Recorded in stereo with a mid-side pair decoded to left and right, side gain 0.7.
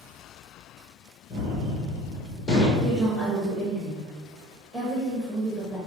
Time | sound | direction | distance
1.3 | a gunshot | 40° left | 1.4 m
2.8 | a woman speaking | 5° left | 1.9 m